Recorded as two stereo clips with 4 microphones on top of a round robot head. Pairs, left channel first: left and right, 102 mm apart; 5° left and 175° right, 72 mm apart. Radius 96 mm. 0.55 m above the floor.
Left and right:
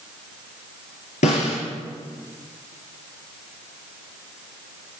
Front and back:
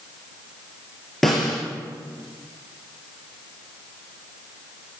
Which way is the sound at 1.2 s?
95° left.